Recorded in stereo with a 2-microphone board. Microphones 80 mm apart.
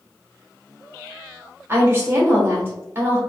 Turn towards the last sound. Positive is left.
turn(degrees=-25)  # may be behind; listen again after turning